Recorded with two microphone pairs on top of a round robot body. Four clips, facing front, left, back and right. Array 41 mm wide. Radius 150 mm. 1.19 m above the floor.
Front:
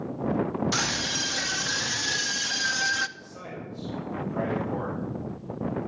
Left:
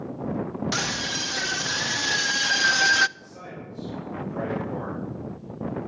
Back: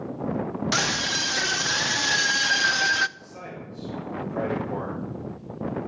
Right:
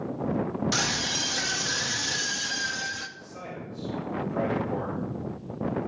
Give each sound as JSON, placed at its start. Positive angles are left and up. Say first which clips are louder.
{"t": 0.7, "sound": "a scream", "louder": "even, back 3 dB", "azimuth_deg": 170, "distance_m": 1.7}
{"t": 3.2, "sound": "a man speaking", "louder": "right 1 dB, even", "azimuth_deg": 180, "distance_m": 6.5}